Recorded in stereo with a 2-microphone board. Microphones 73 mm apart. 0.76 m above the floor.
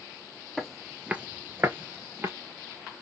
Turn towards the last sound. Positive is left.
turn(degrees=-35)  # may be behind; listen again after turning